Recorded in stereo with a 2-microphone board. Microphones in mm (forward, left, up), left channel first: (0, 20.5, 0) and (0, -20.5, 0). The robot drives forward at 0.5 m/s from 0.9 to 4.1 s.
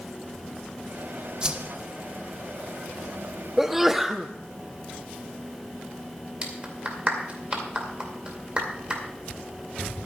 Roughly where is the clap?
Right.